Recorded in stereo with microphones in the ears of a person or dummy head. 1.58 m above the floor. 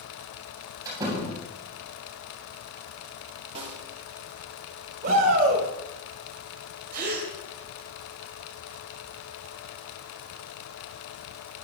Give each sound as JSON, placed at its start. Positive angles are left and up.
{"t": 0.8, "sound": "a door slam", "side_deg": -20, "distance_m": 8.0}
{"t": 3.5, "sound": "a snare drum", "side_deg": -30, "distance_m": 3.0}
{"t": 5.0, "sound": "a shout", "side_deg": -50, "distance_m": 5.0}
{"t": 6.9, "sound": "a gasp", "side_deg": -50, "distance_m": 2.5}